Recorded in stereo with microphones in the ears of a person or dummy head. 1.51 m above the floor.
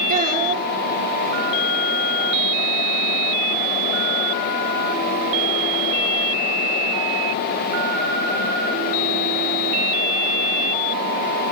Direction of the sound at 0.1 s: 45° right (ahead or behind).